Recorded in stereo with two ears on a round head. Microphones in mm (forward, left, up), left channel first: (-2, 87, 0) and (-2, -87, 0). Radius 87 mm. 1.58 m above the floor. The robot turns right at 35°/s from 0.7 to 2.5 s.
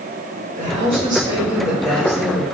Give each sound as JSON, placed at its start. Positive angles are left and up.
{"t": 0.6, "sound": "a woman speaking", "azimuth_deg": -40, "distance_m": 1.8}